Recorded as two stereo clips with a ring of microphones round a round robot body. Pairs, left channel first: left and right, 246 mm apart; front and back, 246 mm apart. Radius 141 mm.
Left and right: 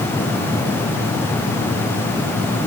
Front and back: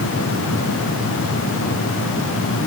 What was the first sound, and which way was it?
Only background noise.